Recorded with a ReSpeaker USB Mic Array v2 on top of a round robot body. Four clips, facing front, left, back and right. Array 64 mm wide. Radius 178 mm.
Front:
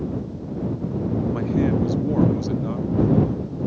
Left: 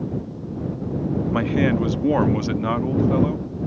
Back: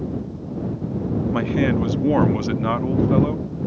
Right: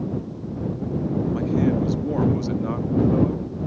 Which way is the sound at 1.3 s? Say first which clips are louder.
Left 2 dB, back 2 dB; 125° left.